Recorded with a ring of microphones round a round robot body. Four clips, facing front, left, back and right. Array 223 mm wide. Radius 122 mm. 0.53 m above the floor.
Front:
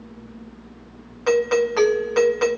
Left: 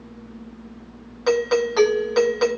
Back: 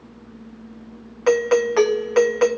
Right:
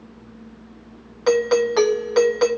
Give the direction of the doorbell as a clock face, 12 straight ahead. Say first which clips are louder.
Right 2 dB, back 1 dB; 5 o'clock.